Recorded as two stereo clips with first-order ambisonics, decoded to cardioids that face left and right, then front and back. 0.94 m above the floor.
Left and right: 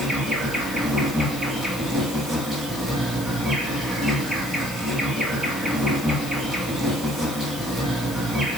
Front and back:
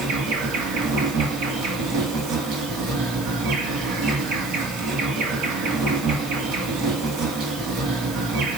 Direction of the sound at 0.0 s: 170° right.